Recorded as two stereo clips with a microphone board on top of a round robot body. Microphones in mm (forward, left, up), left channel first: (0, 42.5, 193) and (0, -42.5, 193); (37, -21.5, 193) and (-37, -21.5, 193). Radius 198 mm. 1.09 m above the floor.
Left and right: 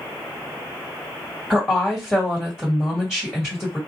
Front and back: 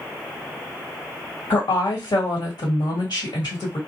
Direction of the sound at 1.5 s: 10° left.